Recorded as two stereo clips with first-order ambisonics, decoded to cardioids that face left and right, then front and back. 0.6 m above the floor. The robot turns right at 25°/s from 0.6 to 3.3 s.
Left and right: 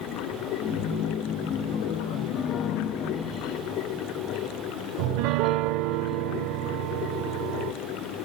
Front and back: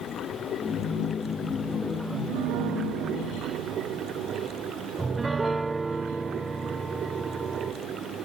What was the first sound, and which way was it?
Running water, 55° left.